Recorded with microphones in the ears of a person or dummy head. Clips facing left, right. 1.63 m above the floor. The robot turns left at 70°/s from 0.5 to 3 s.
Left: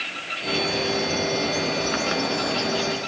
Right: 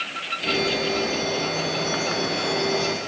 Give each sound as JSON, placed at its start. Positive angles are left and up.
{"t": 0.5, "sound": "a bird", "azimuth_deg": -165, "distance_m": 1.3}